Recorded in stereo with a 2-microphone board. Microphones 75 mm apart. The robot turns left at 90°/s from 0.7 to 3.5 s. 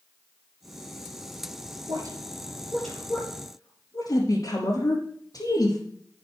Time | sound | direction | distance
1.9 | a woman speaking | 70° right (ahead or behind) | 4.5 m